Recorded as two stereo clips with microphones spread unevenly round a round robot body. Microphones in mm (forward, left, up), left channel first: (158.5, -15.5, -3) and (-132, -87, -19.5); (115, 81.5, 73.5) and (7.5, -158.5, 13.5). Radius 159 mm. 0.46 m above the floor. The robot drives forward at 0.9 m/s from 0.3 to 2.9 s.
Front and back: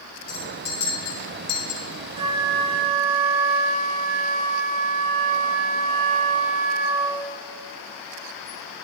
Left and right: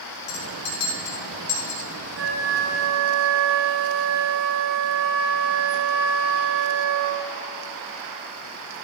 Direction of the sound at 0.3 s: 55° left.